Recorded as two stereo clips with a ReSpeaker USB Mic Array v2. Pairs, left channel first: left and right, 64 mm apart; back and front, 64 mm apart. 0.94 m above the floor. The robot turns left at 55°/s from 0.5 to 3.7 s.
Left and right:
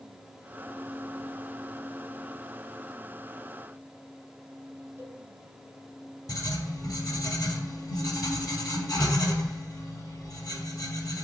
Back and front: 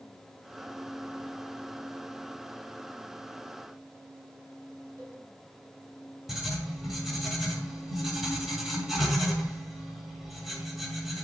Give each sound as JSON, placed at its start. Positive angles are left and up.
{"t": 5.0, "sound": "a cowbell", "azimuth_deg": -35, "distance_m": 2.5}
{"t": 6.3, "sound": "writing", "azimuth_deg": 85, "distance_m": 2.0}